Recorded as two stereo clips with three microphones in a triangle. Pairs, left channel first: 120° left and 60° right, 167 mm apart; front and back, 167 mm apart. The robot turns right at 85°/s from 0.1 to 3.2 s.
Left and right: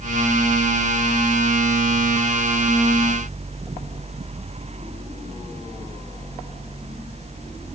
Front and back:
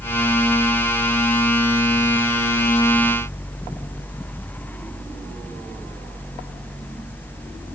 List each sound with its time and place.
Only background noise.